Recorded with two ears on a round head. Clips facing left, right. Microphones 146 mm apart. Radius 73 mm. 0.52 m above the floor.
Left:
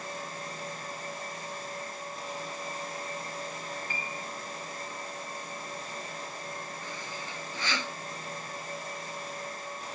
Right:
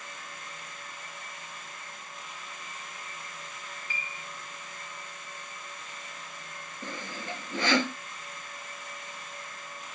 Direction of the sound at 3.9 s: 40° left (ahead or behind).